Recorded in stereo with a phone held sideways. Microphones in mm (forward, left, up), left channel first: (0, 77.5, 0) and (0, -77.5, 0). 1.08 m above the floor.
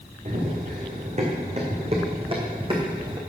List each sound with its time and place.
0.2 s running footsteps: 50° right (ahead or behind), 4 m; by 3.2 s 25° right (ahead or behind), 3 m